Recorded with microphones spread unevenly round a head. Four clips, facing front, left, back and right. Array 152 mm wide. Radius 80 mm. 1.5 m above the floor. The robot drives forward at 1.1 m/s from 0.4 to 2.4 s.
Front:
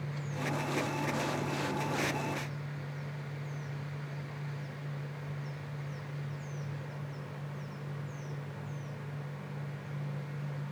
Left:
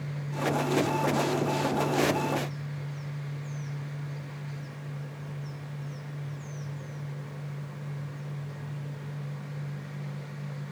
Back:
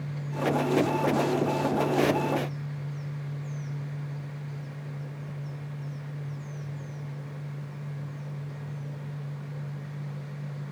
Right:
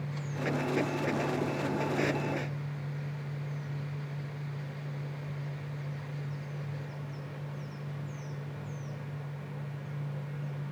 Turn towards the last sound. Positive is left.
No sound to turn to.